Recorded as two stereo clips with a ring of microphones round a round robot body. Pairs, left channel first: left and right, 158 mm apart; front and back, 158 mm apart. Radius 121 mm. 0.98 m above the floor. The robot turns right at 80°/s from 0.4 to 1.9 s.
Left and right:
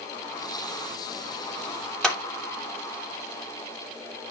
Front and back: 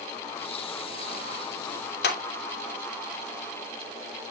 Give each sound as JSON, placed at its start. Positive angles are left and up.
{"t": 2.0, "sound": "a clap", "azimuth_deg": 5, "distance_m": 2.5}